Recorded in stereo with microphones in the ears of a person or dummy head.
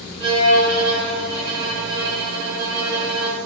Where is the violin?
5° right (ahead or behind), 0.9 m.